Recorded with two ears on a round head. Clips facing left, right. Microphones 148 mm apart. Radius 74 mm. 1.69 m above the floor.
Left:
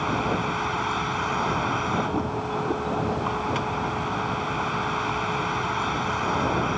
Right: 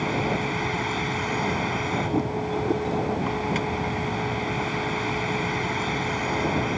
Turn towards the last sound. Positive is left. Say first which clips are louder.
# even
turn(degrees=-15)  # may be behind; listen again after turning